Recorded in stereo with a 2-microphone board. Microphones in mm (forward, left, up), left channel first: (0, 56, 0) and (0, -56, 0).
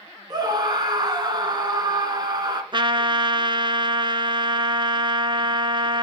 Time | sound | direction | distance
0.3 | a scream | 40° right (ahead or behind) | 2.5 m
2.7 | a trumpet | 45° right (ahead or behind) | 0.8 m